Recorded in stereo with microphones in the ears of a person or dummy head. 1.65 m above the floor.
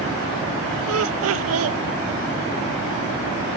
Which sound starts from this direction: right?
Laughter, at 0.9 s.